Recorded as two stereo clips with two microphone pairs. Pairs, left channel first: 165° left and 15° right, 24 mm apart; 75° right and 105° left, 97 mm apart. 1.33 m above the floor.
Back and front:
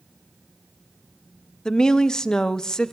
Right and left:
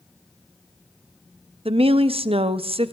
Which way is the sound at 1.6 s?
100° left.